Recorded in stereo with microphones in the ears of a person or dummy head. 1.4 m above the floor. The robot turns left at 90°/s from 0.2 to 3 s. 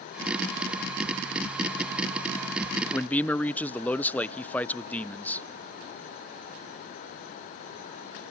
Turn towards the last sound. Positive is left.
turn(degrees=5)  # may be behind; listen again after turning